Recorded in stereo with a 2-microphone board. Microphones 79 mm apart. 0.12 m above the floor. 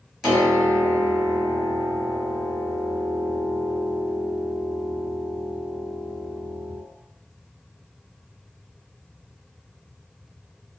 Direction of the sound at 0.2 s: 5° right (ahead or behind).